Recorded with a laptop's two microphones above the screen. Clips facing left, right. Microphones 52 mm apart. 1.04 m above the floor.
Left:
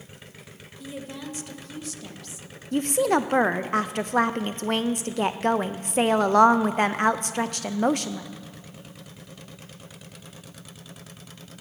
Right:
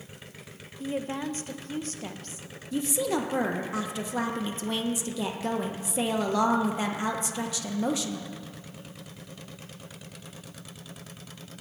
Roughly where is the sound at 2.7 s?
Left.